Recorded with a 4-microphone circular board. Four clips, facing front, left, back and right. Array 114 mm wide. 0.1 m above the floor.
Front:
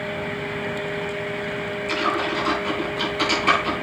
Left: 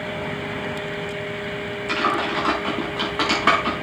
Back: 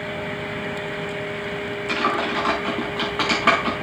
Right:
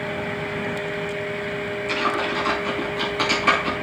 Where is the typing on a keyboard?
130° left, 6 m.